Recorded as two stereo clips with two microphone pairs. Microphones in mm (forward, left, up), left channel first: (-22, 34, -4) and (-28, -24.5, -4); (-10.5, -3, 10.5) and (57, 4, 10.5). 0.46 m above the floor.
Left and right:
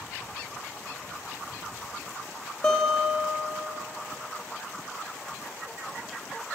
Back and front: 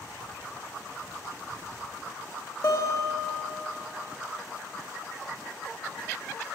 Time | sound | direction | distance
2.6 | a guitar | 155° left | 1.4 m